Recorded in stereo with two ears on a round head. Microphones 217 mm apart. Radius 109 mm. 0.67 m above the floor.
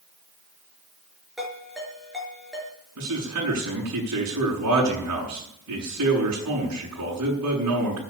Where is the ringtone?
Centre (ahead or behind), 5.5 m.